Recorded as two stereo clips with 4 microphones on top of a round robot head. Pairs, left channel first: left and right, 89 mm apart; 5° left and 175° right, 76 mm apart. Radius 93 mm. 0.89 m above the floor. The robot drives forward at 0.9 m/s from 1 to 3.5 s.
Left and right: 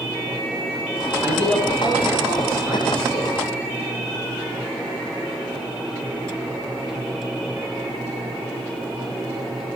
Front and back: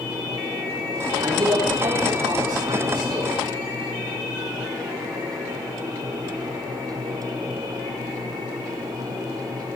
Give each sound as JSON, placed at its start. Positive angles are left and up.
{"t": 1.2, "sound": "a man speaking", "azimuth_deg": 155, "distance_m": 4.0}